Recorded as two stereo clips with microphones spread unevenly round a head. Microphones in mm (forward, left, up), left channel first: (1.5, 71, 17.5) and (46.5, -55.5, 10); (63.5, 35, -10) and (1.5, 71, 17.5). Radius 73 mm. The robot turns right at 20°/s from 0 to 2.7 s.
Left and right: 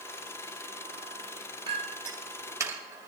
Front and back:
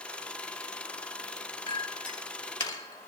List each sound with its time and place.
1.7 s a clink: 25° right, 3.5 m; by 3.1 s straight ahead, 3.5 m